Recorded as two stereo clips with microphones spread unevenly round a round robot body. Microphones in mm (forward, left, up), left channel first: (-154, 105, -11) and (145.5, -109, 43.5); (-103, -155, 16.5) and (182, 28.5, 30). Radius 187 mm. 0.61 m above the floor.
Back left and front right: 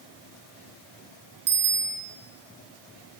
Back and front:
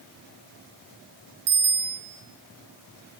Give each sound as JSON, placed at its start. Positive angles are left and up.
{"t": 1.5, "sound": "a bicycle bell", "azimuth_deg": 30, "distance_m": 7.0}